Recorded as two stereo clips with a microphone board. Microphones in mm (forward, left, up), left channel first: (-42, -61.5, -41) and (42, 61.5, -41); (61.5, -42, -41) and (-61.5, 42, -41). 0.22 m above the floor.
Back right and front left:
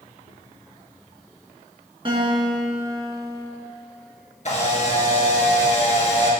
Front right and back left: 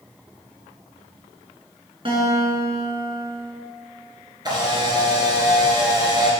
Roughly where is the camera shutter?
Behind right.